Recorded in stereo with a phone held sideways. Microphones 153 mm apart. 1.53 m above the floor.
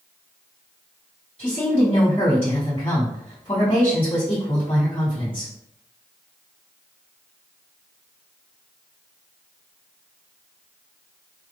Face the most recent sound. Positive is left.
turn(degrees=40)  # may be behind; listen again after turning